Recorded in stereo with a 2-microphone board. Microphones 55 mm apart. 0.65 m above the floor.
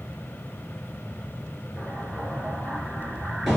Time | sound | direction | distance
1.8 | an explosion | 5° right (ahead or behind) | 4 m